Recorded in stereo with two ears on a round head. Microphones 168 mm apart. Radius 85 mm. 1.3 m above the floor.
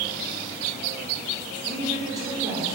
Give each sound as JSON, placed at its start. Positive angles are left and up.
{"t": 1.6, "sound": "a woman speaking", "side_deg": -20, "distance_m": 4.5}